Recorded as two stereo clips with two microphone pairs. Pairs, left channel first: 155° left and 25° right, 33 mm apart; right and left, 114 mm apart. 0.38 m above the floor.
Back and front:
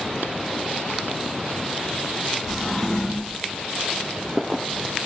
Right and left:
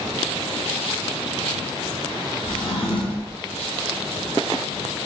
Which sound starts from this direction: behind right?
A drawer, at 2.5 s.